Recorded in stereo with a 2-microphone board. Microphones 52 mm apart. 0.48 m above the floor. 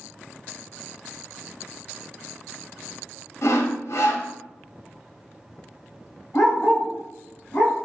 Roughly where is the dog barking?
Left.